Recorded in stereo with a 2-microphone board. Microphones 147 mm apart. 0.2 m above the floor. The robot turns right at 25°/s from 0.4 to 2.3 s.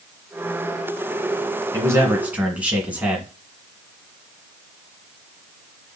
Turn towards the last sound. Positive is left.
turn(degrees=-10)  # may be behind; listen again after turning